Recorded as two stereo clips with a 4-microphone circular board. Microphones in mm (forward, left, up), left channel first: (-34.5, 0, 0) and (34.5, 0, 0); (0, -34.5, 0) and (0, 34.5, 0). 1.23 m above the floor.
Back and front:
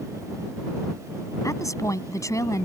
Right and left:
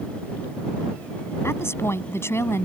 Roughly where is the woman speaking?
Behind right.